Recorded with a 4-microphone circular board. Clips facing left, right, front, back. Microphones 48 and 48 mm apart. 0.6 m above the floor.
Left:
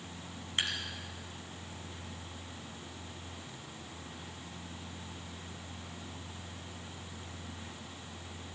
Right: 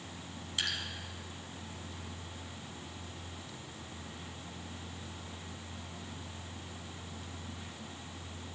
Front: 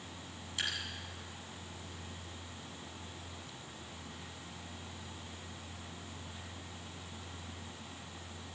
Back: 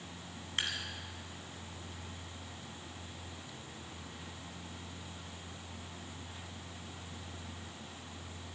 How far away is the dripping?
About 2.5 m.